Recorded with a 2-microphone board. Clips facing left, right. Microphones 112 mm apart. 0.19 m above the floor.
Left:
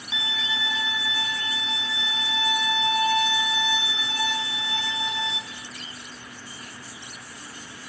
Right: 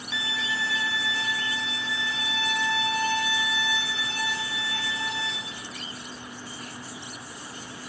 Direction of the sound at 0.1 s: 20° left (ahead or behind).